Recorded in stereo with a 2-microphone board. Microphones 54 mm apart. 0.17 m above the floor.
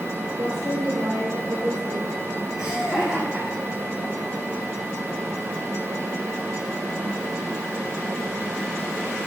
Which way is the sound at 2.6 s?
15° right (ahead or behind).